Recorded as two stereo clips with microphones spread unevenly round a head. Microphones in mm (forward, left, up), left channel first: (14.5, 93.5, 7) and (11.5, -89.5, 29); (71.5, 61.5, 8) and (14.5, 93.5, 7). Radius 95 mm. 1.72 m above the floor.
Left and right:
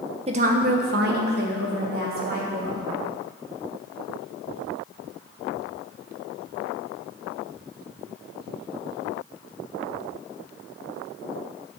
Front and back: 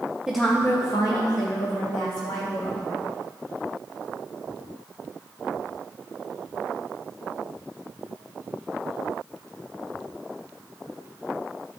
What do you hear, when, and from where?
0.3 s a woman speaking: 125° right, 0.8 m; by 2.9 s 55° right, 3 m